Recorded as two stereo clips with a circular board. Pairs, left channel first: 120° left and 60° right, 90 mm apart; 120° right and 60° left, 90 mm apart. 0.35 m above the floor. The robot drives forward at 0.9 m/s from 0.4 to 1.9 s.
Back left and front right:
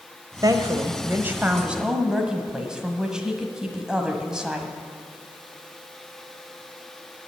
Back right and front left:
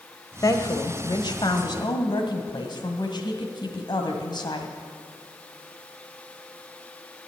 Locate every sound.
0.4 s a woman speaking: 85° right, 1.2 m; by 4.7 s 140° right, 1.7 m